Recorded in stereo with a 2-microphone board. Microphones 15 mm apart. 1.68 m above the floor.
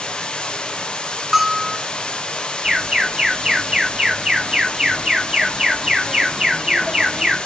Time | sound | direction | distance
0.0 | running water | 80° left | 1.0 m
1.3 | a bell | 20° right (ahead or behind) | 0.9 m
2.6 | an alarm | 50° right (ahead or behind) | 2 m